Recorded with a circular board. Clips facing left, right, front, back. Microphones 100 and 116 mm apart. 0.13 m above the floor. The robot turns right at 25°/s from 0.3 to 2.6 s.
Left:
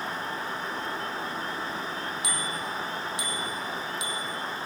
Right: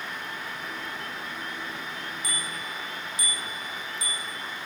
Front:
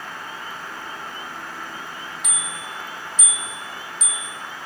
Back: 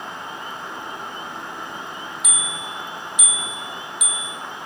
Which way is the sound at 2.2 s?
95° left.